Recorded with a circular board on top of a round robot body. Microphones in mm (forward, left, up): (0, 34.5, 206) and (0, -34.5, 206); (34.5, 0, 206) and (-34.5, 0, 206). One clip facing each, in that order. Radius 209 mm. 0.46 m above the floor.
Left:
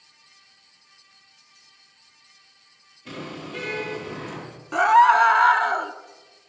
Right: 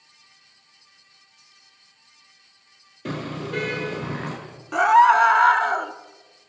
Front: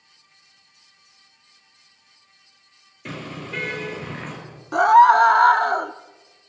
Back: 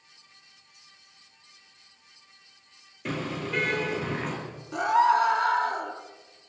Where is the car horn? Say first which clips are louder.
Right 5 dB, back 2 dB; 95° right, 7.5 m.